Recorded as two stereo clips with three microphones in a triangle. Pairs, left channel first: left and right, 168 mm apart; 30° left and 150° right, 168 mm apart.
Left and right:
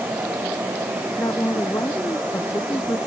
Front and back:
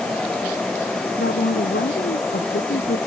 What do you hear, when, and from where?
1.2 s a woman speaking: 15° left